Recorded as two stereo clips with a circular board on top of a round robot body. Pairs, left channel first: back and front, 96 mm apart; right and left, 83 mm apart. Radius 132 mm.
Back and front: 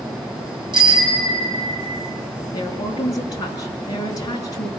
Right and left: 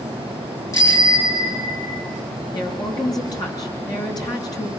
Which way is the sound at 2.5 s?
130° right.